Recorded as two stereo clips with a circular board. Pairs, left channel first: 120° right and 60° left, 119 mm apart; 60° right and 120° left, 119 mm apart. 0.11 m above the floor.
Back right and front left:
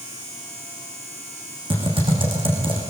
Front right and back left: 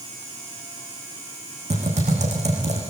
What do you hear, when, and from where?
1.7 s typing on a keyboard: 100° left, 8.5 m